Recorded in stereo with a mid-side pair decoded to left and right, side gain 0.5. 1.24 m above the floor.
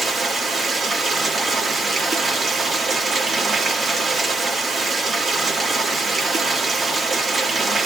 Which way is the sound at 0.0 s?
30° right.